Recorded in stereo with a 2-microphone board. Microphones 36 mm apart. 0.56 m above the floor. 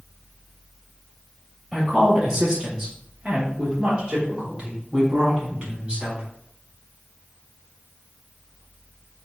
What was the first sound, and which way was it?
A woman speaking, 5° right (ahead or behind).